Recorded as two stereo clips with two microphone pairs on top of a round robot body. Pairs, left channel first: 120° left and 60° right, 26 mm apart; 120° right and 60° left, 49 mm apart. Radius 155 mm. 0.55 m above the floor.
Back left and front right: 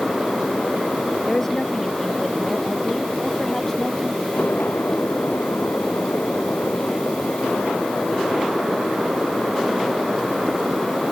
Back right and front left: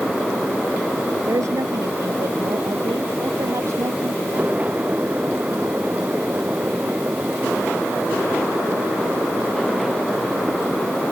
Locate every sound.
1.3 s a woman speaking: 50° left; by 4.5 s 45° left